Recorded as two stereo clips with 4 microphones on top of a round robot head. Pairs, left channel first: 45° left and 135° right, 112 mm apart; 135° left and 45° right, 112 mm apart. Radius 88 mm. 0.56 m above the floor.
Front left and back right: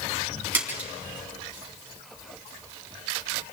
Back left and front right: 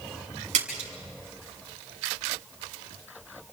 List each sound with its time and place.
0.5 s a splash: 60° right, 5.5 m